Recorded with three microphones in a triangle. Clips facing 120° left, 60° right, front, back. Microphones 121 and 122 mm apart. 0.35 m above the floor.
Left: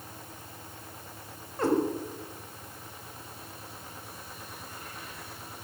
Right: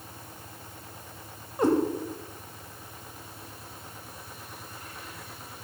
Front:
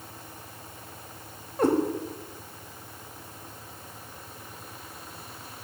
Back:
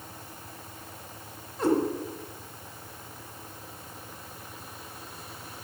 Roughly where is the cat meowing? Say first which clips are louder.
Right 3 dB, front 2 dB; ahead.